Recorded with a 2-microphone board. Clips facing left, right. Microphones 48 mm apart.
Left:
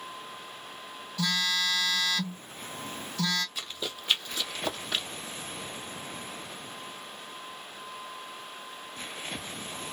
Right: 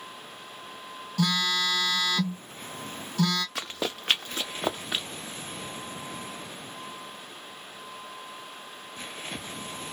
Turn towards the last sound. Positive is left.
turn(degrees=-5)  # may be behind; listen again after turning